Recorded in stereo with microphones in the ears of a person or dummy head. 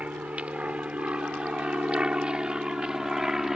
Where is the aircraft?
10° right (ahead or behind); by 3.6 s centre (ahead or behind).